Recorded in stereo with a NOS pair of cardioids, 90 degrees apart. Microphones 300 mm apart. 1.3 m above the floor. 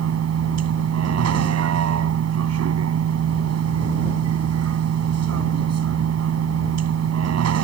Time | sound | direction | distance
0.0 | a vehicle | 55° right | ?